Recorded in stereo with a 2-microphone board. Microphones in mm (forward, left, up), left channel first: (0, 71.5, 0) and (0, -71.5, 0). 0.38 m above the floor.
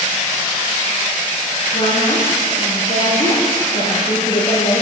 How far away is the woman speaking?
About 7.5 m.